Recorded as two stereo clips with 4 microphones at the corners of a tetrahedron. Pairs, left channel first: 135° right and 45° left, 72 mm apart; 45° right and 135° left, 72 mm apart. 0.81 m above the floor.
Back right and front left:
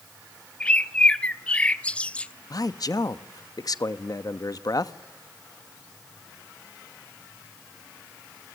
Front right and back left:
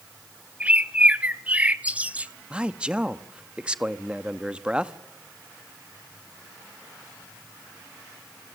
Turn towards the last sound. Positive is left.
turn(degrees=-155)